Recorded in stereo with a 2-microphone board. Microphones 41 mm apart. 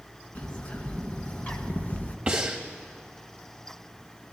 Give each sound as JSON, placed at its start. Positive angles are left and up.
{"t": 0.3, "sound": "a bird", "side_deg": 40, "distance_m": 1.0}
{"t": 2.3, "sound": "breathing", "side_deg": -25, "distance_m": 1.2}